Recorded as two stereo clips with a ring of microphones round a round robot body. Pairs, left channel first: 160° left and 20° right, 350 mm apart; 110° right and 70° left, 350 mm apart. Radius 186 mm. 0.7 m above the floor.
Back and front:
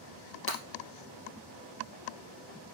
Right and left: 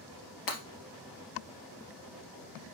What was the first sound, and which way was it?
Breaking glass, 145° right.